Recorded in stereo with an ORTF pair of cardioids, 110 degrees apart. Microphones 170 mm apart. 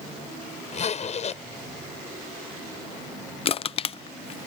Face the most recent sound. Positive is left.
turn(degrees=35)